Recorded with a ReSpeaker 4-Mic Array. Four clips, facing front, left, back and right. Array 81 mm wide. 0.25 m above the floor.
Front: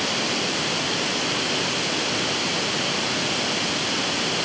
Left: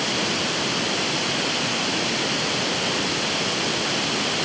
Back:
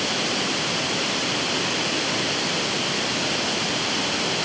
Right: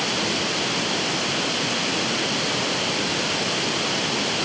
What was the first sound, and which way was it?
Only background noise.